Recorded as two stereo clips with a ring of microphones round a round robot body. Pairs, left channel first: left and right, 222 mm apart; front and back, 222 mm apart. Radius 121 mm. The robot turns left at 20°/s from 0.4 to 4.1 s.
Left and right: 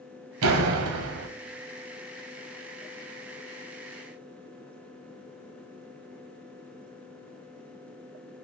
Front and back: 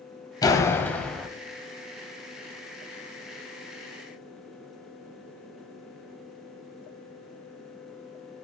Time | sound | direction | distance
0.4 | a door slam | 70° right | 1.7 m